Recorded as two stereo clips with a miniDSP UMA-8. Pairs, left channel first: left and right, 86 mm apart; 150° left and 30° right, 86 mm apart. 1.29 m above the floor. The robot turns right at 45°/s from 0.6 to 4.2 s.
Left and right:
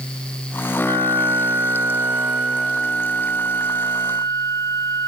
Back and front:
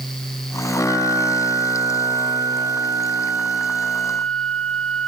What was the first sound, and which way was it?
A flute, 75° right.